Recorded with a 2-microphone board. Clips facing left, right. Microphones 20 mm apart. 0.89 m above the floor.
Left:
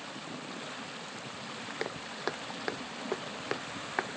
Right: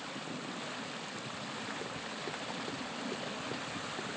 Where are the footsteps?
60° left (ahead or behind); by 4.2 s 75° left (ahead or behind).